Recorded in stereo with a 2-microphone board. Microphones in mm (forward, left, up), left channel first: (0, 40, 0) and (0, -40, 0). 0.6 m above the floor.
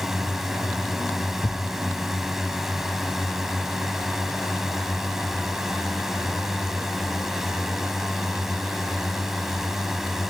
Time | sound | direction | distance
0.0 | a drone | 5° right (ahead or behind) | ?
1.4 | a thud | 40° left (ahead or behind) | ?